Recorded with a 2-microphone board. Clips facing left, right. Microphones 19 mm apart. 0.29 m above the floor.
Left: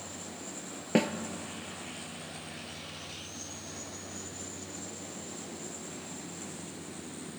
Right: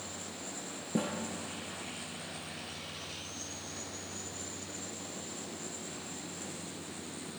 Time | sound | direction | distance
0.9 | a snare drum | 65° left (ahead or behind) | 1.1 m